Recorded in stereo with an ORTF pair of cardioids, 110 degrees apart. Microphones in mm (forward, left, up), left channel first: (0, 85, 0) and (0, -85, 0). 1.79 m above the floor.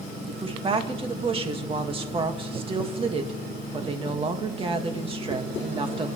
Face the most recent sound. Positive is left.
turn(degrees=-30)